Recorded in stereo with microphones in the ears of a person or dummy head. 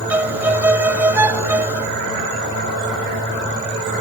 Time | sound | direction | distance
0.1 | a violin | 10° right (ahead or behind) | ?